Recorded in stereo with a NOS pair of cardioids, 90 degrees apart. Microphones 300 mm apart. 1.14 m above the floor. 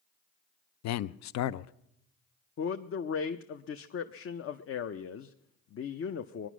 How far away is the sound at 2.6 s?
About 0.7 m.